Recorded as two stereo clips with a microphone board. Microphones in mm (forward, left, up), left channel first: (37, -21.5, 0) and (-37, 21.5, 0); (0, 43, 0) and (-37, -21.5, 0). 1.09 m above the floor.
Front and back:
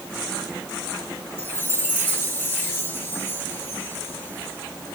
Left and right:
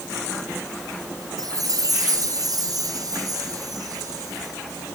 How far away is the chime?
About 4 m.